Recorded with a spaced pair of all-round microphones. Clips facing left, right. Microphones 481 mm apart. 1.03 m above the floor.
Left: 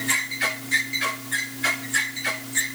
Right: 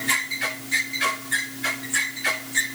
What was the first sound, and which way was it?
Only background noise.